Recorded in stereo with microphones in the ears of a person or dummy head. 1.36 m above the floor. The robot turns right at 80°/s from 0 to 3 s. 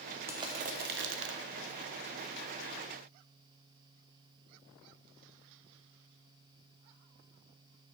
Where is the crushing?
165° right, 0.5 m; by 1.4 s 80° right, 0.5 m.